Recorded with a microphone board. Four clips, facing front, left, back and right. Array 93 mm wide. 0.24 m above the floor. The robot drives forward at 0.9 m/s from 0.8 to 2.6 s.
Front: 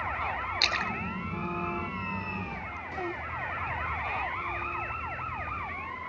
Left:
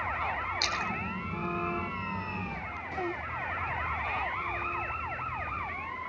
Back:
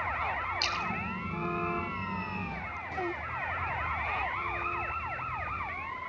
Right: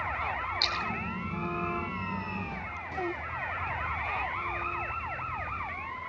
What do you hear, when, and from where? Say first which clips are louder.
0.6 s a splash: even, front 2 dB; 10° left, 1.7 m; by 2.8 s 90° left, 0.5 m